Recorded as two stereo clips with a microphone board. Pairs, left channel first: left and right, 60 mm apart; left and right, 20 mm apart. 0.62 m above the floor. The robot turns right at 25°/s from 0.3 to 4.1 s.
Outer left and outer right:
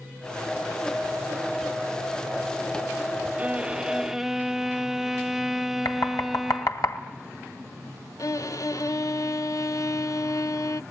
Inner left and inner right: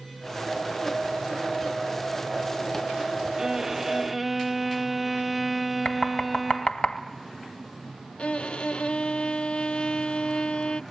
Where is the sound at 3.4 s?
20° right (ahead or behind), 0.6 m; by 6.8 s 5° right (ahead or behind), 0.6 m.